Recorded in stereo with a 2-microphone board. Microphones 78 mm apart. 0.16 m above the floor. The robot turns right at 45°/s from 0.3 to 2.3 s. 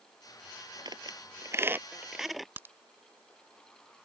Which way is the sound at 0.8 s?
60° right (ahead or behind).